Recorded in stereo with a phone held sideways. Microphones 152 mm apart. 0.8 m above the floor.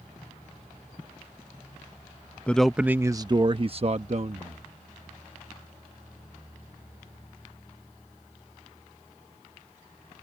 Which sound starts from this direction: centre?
A man speaking, at 2.5 s.